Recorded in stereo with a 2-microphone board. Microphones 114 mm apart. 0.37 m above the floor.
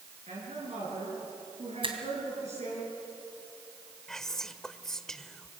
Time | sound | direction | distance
0.3 | a woman speaking | 70° right (ahead or behind) | 6 m
1.8 | a finger snap | 50° right (ahead or behind) | 2.5 m
4.1 | whispering | 5° left (ahead or behind) | 0.9 m